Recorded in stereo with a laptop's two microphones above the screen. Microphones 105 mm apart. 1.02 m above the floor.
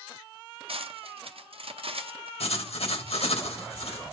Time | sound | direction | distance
0.7 | cutlery clinking | 65° right (ahead or behind) | 0.8 m
2.4 | writing | 70° left (ahead or behind) | 1.6 m